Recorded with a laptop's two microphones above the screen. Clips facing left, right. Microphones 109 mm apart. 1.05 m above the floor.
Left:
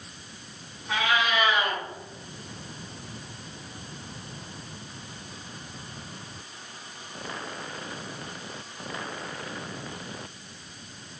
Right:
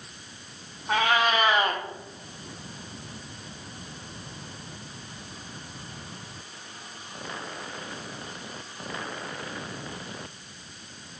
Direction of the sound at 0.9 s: 45° right (ahead or behind).